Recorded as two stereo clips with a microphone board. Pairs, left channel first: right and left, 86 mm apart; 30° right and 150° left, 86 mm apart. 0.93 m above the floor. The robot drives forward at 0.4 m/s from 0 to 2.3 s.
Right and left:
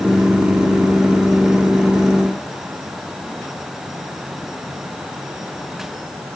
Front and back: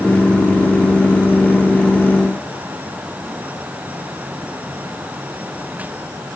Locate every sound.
Only background noise.